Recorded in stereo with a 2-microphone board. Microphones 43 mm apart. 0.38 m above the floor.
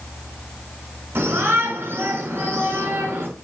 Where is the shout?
60° right (ahead or behind), 5 m.